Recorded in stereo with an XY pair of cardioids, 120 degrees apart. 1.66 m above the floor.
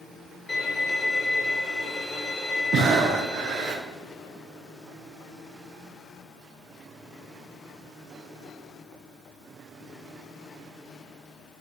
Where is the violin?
25° left, 1.8 m.